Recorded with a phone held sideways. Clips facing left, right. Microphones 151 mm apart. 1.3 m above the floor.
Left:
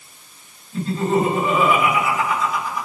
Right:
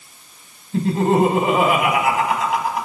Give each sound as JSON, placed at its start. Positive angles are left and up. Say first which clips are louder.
{"t": 0.7, "sound": "laughter", "louder": "right 3 dB", "side_deg": -80, "distance_m": 5.0}